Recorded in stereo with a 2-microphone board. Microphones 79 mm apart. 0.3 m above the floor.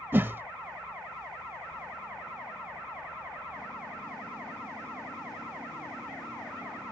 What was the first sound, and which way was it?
A whoosh, 30° right (ahead or behind).